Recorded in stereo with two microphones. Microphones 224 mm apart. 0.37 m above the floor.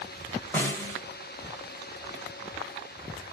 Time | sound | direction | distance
0.5 | a snare drum | 10° left (ahead or behind) | 1.4 m